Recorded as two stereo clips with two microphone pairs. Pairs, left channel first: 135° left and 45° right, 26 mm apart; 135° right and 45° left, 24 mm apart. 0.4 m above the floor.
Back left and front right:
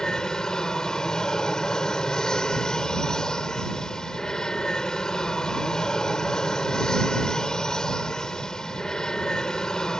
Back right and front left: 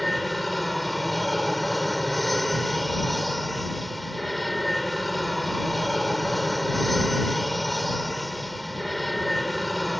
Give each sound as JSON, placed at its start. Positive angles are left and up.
{"t": 0.0, "sound": "an aircraft", "azimuth_deg": 140}